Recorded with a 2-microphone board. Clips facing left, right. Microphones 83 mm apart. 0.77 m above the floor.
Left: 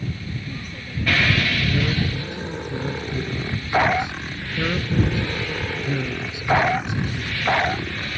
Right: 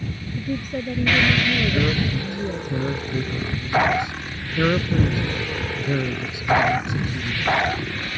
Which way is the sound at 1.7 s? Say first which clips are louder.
Right 2 dB; 30° right (ahead or behind).